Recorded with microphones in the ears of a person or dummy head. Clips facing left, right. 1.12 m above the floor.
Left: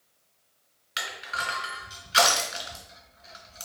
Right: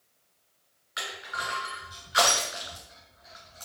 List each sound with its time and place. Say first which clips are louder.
1.0 s crushing: left 1 dB; 50° left (ahead or behind), 1.9 m